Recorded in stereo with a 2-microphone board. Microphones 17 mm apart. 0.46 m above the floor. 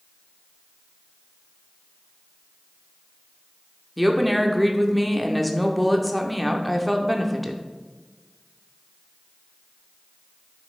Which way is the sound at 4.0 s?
Centre (ahead or behind).